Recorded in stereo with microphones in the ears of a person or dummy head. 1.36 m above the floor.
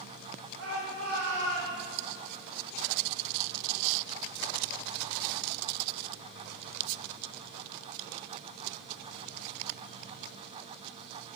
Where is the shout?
85° right, 3 m; by 2.0 s 75° right (ahead or behind), 3.5 m.